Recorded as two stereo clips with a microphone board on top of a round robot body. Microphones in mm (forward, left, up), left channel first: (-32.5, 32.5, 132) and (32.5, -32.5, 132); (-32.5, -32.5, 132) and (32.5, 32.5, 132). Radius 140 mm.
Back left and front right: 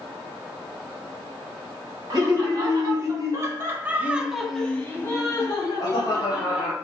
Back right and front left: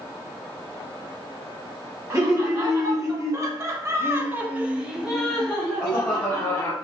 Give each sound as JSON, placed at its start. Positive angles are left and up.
{"t": 2.1, "sound": "laughter", "azimuth_deg": -5, "distance_m": 1.9}